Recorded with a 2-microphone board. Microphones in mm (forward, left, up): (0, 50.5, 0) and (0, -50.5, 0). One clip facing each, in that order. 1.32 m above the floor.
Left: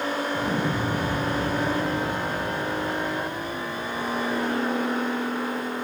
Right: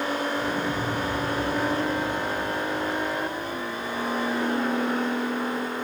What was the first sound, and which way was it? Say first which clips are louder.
An explosion: left 1 dB; 65° left (ahead or behind).